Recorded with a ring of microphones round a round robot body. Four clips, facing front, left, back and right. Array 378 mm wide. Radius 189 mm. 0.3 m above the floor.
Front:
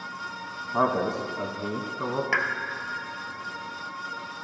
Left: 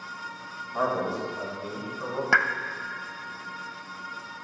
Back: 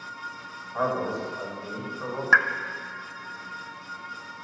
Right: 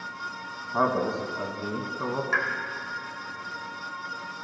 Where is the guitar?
I don't hear a guitar.